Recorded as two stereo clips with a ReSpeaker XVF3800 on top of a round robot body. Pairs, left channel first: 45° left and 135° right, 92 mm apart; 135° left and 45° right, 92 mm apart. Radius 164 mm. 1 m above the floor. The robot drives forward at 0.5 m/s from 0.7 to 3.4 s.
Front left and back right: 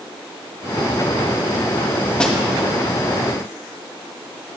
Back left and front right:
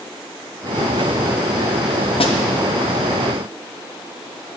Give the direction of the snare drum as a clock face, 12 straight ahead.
8 o'clock.